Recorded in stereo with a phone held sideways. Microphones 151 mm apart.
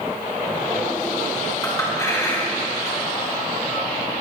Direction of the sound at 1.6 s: 20° left (ahead or behind).